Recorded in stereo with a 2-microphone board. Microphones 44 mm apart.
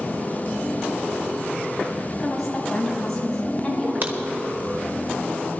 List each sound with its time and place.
2.2 s a woman speaking: 5° left (ahead or behind), 3.5 m; by 3.9 s 15° left (ahead or behind), 4.5 m
4.0 s a crack: 45° right (ahead or behind), 1.2 m